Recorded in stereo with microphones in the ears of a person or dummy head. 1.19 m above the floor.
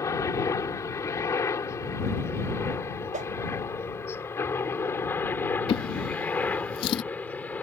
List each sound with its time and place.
0.0 s a helicopter: 20° left (ahead or behind); by 7.6 s 10° left (ahead or behind)
3.1 s a whoosh: 40° right (ahead or behind)
5.7 s a drawer: 25° left (ahead or behind)